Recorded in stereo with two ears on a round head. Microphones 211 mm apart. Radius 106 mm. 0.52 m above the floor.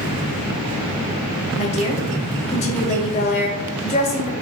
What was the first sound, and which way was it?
A woman speaking, 30° left (ahead or behind).